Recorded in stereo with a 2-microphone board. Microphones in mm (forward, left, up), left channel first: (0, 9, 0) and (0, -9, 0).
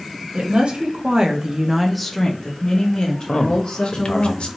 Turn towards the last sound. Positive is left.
turn(degrees=65)  # may be behind; listen again after turning